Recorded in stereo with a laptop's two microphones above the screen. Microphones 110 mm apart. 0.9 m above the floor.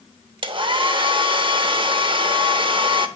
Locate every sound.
0.4 s a hair dryer: 45° right (ahead or behind), 0.7 m